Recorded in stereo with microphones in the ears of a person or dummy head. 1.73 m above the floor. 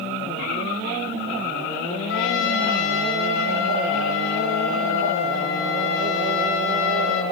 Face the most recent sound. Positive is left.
turn(degrees=70)  # may be behind; listen again after turning